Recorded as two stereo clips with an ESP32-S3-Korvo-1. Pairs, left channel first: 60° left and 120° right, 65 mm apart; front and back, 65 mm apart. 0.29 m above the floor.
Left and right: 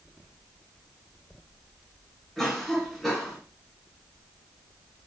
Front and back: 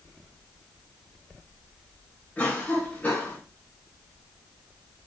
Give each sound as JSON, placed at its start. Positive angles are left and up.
{"t": 2.4, "sound": "a cough", "azimuth_deg": -25, "distance_m": 1.4}